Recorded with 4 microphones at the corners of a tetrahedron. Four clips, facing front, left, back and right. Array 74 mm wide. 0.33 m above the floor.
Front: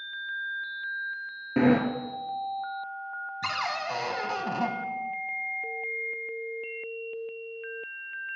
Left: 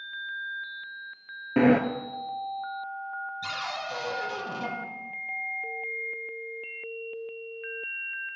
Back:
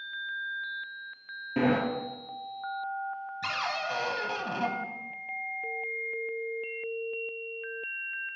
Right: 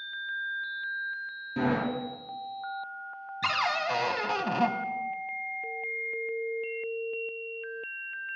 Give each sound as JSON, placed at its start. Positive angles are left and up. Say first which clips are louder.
{"t": 1.6, "sound": "a sliding door", "louder": "left 8 dB, front 4 dB", "azimuth_deg": 70, "distance_m": 0.8}
{"t": 3.4, "sound": "a cupboard door", "louder": "right 11 dB, front 1 dB", "azimuth_deg": -75, "distance_m": 0.7}